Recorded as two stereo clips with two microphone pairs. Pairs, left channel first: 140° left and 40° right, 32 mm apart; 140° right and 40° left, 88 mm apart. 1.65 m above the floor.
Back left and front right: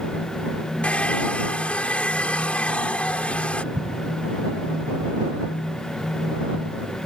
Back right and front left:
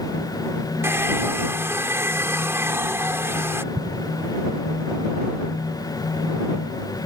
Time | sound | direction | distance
0.8 | a hair dryer | 95° left | ?
3.7 | an explosion | 15° right | ?